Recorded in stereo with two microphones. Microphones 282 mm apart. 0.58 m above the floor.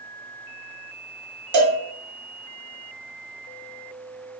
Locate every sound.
1.5 s a cowbell: 80° right, 0.6 m